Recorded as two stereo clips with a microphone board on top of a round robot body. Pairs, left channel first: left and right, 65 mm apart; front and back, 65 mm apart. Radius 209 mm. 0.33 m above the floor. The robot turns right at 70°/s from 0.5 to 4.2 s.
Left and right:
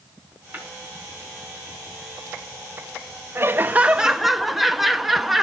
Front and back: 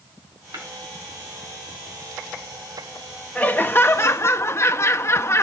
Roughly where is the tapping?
Behind right.